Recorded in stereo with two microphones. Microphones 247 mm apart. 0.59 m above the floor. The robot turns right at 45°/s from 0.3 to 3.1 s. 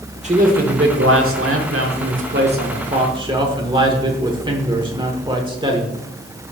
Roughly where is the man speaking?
Behind right.